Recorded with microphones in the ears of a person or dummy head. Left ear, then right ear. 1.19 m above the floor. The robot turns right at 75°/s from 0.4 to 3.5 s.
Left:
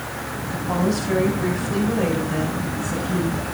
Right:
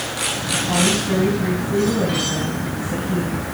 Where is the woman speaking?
15° left, 6 m; by 3.4 s 140° right, 6 m.